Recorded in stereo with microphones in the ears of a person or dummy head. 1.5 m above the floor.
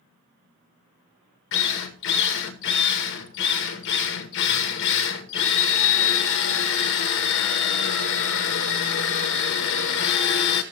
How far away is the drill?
About 1.3 m.